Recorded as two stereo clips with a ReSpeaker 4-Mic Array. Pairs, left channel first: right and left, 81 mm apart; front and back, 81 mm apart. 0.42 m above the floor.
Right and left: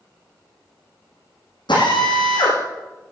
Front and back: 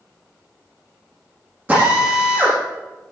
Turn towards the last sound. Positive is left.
turn(degrees=-110)